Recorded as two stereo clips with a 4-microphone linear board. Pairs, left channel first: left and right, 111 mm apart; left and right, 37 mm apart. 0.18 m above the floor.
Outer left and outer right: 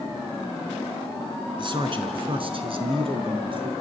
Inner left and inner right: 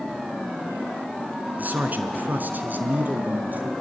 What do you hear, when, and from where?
1.6 s a man speaking: 50° right (ahead or behind), 2 m